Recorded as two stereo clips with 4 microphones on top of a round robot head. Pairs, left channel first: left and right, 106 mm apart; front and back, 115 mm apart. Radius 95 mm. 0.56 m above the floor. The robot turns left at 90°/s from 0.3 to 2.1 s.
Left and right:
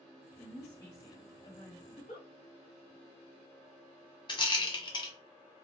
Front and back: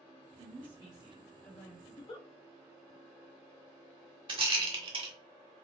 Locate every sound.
0.4 s a woman speaking: 175° left, 1.3 m; by 1.8 s 50° left, 1.3 m
1.9 s a giggle: 65° left, 1.5 m; by 2.3 s 45° left, 1.5 m
4.3 s a rattle: 135° left, 0.9 m